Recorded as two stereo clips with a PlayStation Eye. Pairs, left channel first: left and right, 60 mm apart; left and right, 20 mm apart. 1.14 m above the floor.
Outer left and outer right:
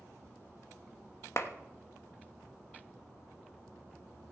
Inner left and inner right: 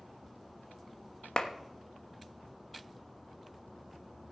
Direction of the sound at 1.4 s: 50° left (ahead or behind).